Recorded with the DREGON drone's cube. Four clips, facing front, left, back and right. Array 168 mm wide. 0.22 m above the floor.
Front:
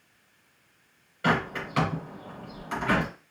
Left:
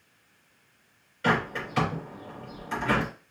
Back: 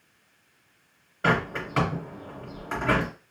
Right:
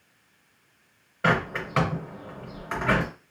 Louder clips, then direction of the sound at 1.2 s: Right 2 dB, back 1 dB; 125° right.